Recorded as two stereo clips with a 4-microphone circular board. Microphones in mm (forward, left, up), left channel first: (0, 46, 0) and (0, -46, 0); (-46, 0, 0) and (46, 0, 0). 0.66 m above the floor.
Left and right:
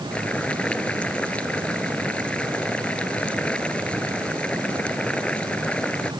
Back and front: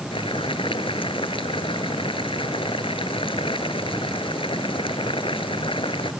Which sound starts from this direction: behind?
Boiling, at 0.1 s.